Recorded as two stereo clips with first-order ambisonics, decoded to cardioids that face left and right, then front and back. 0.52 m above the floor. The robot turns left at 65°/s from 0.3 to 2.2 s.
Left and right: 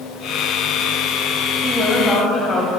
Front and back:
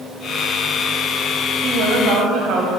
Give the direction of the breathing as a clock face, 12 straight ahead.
I don't hear breathing.